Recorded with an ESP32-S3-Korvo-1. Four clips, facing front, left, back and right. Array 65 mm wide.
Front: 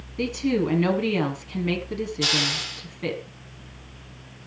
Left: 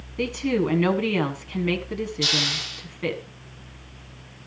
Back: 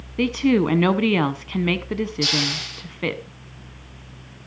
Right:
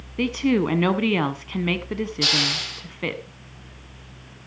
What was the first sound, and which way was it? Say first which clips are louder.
A woman speaking: right 3 dB, back 5 dB; 155° right.